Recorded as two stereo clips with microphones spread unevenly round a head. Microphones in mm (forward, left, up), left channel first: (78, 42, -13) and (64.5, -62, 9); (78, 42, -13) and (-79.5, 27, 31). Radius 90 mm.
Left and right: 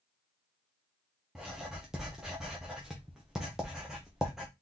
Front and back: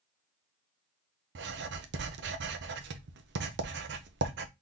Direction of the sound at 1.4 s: 175° left.